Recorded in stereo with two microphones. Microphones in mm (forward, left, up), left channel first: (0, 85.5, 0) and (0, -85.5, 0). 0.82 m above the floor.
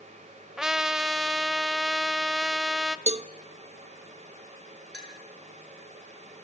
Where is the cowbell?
40° right (ahead or behind), 0.7 m.